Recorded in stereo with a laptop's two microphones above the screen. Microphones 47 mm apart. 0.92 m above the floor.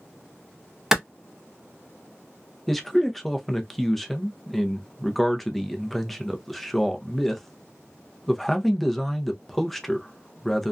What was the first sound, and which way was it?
A clap, 10° right (ahead or behind).